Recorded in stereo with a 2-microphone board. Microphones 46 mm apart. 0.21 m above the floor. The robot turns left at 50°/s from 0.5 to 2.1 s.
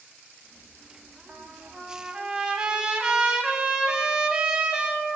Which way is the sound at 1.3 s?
95° right.